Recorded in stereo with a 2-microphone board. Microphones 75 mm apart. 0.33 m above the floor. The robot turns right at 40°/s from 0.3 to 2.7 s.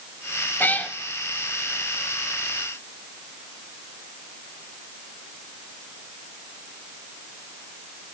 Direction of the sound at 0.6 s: 30° left (ahead or behind).